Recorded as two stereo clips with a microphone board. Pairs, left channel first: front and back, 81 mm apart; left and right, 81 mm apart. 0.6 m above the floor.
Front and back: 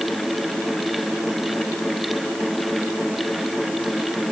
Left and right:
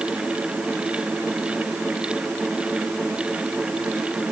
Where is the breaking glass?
I don't hear breaking glass.